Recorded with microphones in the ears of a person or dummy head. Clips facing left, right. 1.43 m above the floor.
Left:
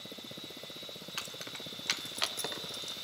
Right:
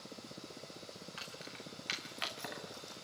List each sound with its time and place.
1.2 s keys jangling: 65° left (ahead or behind), 2.5 m; by 3.0 s 55° left (ahead or behind), 2 m